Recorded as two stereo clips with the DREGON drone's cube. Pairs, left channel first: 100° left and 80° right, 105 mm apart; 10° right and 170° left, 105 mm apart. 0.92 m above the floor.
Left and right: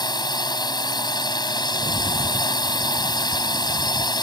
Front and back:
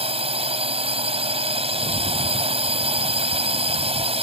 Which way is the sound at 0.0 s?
150° left.